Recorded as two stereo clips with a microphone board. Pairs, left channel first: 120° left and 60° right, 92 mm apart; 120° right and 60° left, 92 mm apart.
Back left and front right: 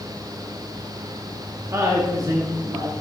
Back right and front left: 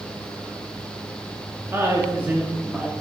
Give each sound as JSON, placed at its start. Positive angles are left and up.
{"t": 1.7, "sound": "a woman speaking", "azimuth_deg": -5, "distance_m": 2.0}